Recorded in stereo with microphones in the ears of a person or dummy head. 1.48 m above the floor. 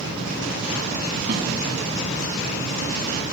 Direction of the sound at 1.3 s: 55° right (ahead or behind).